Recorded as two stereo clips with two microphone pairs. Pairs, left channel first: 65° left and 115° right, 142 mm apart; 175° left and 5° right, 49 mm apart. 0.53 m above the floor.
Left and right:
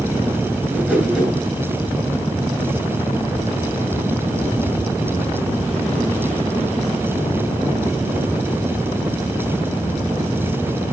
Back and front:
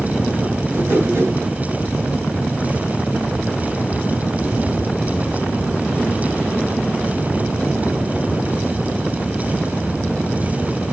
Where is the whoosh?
30° right, 9.5 m.